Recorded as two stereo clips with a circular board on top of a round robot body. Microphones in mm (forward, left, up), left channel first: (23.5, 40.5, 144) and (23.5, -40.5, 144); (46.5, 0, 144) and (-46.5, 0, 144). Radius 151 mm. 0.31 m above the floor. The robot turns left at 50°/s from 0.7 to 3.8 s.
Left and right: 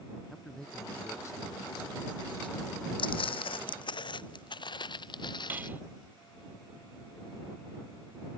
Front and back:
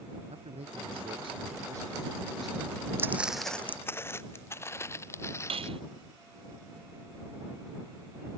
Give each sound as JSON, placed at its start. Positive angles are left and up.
{"t": 0.3, "sound": "a man speaking", "azimuth_deg": 175}
{"t": 3.0, "sound": "footsteps", "azimuth_deg": 115}
{"t": 5.5, "sound": "cutlery clinking", "azimuth_deg": -160}